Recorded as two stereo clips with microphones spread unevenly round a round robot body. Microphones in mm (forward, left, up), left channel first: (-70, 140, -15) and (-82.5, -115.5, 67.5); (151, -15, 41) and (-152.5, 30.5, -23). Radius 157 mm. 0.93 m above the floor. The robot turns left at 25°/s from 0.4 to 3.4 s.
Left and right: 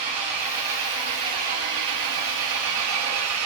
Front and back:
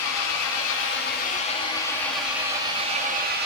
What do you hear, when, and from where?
0.0 s an engine running: 55° right, 1.4 m; by 3.5 s 130° right, 1.4 m